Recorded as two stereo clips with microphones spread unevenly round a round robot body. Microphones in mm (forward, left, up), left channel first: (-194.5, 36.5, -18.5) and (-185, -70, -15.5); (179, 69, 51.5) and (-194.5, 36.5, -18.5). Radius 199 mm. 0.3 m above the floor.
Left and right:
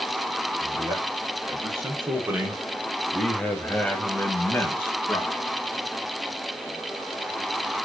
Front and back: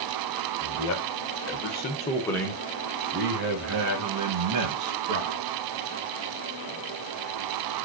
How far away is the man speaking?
About 1.5 m.